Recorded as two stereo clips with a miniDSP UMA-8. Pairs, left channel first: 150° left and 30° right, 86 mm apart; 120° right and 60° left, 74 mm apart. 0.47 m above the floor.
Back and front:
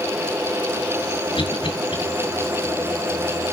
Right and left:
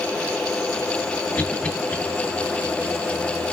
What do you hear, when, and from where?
1.4 s a cough: 165° left, 7.5 m